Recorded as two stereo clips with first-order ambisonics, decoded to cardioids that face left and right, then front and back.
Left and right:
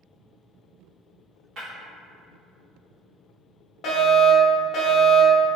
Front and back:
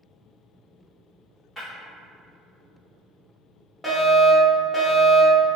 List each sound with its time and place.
1.6 s breaking glass: 75° right, 1.3 m
3.8 s a fire alarm: 90° left, 0.8 m